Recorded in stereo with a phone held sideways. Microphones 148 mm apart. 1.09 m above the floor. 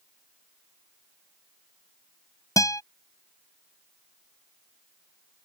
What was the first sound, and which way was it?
A guitar, 25° left (ahead or behind).